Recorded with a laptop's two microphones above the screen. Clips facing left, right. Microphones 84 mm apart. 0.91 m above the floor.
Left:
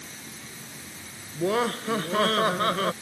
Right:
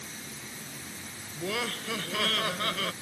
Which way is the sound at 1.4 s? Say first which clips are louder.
Left 9 dB; 35° left (ahead or behind).